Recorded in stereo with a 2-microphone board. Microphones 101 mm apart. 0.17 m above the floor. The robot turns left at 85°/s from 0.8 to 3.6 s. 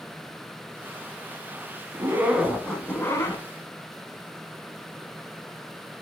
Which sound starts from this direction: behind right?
A zipper, at 1.9 s.